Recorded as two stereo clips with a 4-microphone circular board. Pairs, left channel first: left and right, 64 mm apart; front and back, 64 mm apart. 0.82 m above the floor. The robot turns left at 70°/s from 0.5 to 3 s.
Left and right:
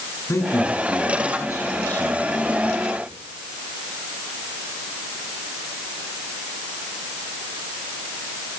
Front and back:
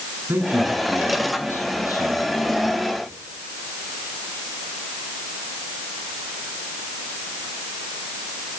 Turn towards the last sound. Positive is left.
turn(degrees=-50)